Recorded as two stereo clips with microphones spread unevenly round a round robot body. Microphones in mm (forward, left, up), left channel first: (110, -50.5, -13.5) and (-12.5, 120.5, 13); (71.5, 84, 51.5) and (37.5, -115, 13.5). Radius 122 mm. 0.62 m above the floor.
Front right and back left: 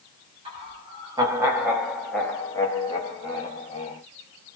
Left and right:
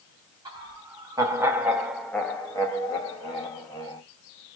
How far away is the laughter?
About 1.2 m.